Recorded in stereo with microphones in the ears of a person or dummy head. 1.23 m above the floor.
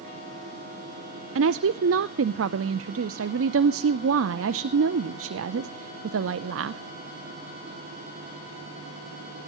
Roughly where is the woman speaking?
Right.